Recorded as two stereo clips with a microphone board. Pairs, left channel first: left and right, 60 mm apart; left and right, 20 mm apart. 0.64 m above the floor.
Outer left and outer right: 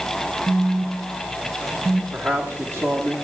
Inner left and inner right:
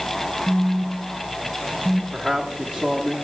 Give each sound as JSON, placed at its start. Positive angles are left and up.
{"t": 0.5, "sound": "a phone buzzing", "side_deg": -50, "distance_m": 0.6}
{"t": 2.1, "sound": "a man speaking", "side_deg": -45, "distance_m": 1.5}